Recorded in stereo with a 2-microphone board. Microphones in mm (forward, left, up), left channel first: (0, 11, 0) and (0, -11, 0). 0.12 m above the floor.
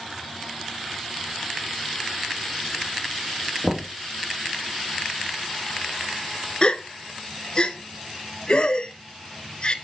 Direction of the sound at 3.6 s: 35° right (ahead or behind).